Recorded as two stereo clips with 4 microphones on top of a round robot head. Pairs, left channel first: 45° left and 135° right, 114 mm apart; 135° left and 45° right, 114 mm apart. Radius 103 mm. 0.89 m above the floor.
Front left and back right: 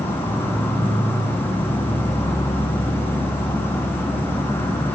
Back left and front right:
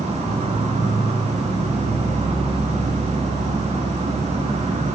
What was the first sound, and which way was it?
An insect, 25° right.